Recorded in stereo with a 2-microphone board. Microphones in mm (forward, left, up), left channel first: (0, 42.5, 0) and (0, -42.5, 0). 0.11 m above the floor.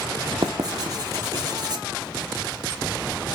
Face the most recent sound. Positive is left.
turn(degrees=-55)  # may be behind; listen again after turning